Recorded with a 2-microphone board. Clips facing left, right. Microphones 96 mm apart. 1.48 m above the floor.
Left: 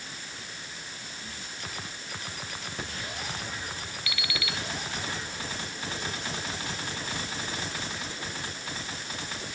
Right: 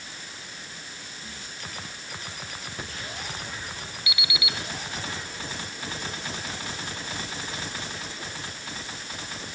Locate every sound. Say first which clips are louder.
4.1 s an alarm clock: right 1 dB; 20° right (ahead or behind), 1.6 m